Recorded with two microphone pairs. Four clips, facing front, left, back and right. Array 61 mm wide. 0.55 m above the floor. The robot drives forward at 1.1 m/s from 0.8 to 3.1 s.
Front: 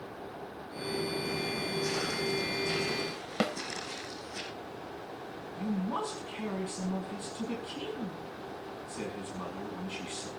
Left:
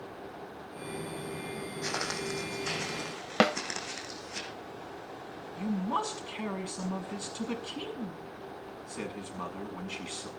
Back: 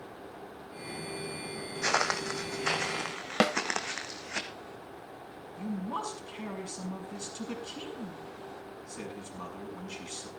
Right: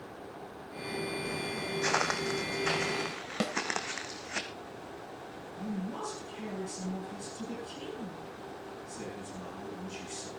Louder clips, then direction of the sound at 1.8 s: Right 5 dB, back 7 dB; 145° right.